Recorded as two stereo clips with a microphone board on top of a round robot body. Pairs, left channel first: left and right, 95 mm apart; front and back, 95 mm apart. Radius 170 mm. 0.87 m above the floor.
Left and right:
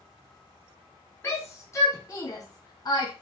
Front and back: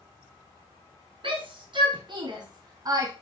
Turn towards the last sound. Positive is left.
turn(degrees=130)